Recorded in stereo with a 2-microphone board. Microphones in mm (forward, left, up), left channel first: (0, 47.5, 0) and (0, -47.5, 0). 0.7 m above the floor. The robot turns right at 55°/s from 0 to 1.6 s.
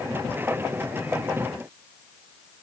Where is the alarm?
No alarm in this recording.